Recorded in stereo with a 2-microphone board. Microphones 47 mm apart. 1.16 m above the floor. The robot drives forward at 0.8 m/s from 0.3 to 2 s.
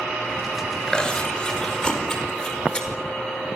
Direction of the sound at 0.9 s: 15° left (ahead or behind).